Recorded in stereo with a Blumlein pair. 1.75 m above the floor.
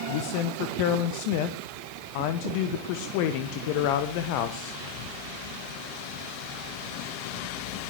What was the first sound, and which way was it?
A man speaking, 45° left.